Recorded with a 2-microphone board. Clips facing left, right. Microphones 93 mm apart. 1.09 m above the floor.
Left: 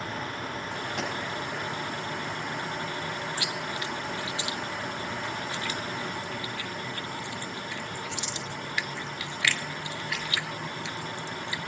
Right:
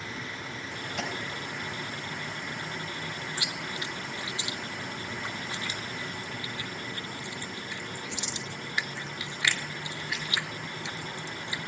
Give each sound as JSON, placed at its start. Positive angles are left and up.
{"t": 1.0, "sound": "a pop", "side_deg": 65, "distance_m": 6.5}
{"t": 3.4, "sound": "chewing", "side_deg": -15, "distance_m": 0.7}